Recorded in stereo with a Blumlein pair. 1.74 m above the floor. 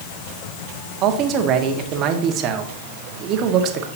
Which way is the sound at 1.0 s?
35° right.